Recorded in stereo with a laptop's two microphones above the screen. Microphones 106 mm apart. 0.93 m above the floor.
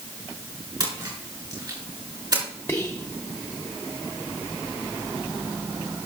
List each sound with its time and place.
0.8 s a splash: 45° right (ahead or behind), 3.5 m
2.7 s whispering: 15° left (ahead or behind), 0.5 m